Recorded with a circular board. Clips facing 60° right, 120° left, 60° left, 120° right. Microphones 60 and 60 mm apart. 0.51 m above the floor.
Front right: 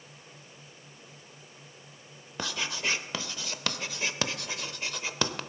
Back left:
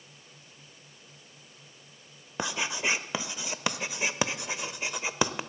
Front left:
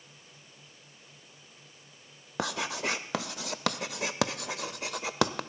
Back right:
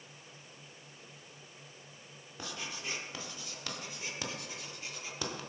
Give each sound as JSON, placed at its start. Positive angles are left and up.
{"t": 2.4, "sound": "writing", "azimuth_deg": 50, "distance_m": 0.5}